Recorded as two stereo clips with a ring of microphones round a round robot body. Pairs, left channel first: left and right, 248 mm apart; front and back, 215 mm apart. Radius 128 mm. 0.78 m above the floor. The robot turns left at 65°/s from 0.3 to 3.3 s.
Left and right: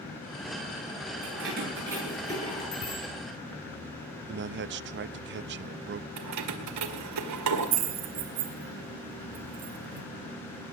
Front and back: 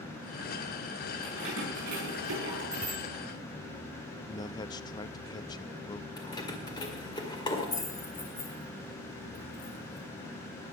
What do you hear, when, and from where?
1.2 s keys jangling: 125° right, 10 m; by 2.6 s 145° left, 10 m
2.7 s a bicycle bell: 125° left, 10 m; by 3.0 s 100° left, 10 m
4.3 s a man speaking: 65° right, 0.5 m
6.2 s keys jangling: 75° right, 1.9 m